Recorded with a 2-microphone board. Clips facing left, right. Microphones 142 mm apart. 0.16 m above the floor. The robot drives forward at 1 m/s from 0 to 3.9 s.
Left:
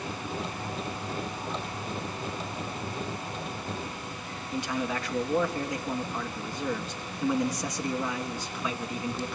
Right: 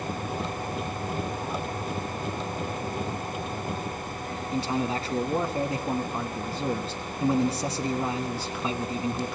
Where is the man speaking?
30° right (ahead or behind), 1.2 m.